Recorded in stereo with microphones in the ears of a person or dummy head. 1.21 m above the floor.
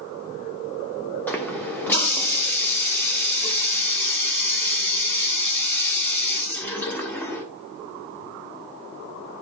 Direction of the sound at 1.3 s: 15° left (ahead or behind).